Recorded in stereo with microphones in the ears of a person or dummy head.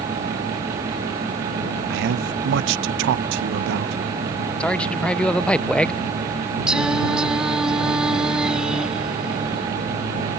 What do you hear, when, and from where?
1.9 s a man speaking: 65° right (ahead or behind)
4.6 s a man speaking: centre (ahead or behind)
6.7 s singing: 10° right (ahead or behind)